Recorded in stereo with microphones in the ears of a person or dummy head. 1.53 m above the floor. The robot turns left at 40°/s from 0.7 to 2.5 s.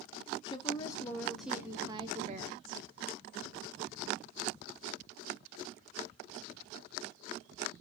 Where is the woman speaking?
25° left, 0.7 m; by 2.8 s 45° right, 0.7 m.